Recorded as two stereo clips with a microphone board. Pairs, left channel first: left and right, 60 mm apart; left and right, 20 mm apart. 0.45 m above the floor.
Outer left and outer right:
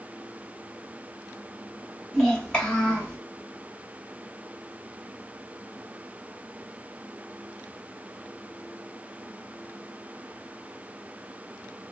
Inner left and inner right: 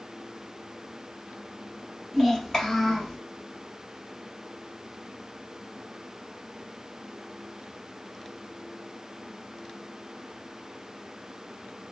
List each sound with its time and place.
2.1 s a child speaking: 10° left (ahead or behind), 1.4 m; by 3.2 s 20° left (ahead or behind), 2 m